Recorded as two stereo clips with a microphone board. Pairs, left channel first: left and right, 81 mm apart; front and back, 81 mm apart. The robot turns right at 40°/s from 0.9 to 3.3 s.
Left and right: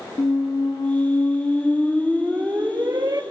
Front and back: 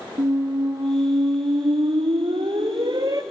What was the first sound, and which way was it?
A squeak, 135° left.